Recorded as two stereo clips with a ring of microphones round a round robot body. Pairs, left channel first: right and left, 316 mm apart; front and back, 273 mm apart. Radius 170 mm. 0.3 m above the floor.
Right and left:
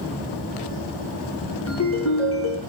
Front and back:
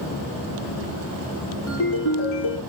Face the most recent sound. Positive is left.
turn(degrees=-45)